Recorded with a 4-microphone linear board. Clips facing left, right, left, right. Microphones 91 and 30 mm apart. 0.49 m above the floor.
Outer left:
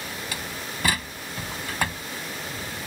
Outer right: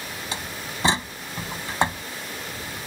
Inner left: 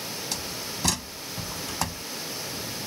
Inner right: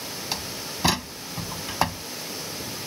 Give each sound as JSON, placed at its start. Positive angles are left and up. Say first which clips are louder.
{"t": 0.3, "sound": "a door slam", "louder": "outer right 1 dB, inner right 1 dB", "side_deg": -25}